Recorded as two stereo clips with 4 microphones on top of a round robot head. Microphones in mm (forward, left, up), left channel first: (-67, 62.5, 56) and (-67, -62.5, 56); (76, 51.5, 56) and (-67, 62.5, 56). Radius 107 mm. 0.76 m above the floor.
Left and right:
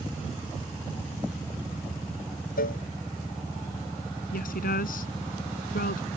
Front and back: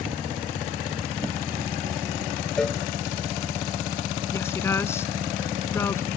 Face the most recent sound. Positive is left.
turn(degrees=70)